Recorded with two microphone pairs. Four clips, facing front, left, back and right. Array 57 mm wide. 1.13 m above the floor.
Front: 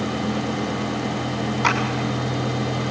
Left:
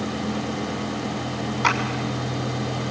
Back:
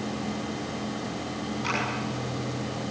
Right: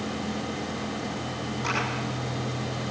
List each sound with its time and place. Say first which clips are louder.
1.6 s a clap: left 9 dB, front 10 dB; 45° left, 7 m